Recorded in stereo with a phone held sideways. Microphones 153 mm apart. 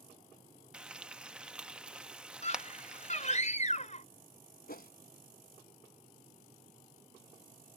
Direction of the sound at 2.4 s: 45° left (ahead or behind).